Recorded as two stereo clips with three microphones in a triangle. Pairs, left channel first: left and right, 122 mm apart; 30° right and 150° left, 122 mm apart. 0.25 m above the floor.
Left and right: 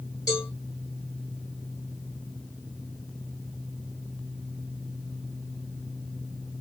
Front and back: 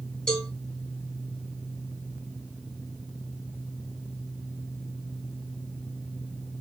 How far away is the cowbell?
About 1.8 m.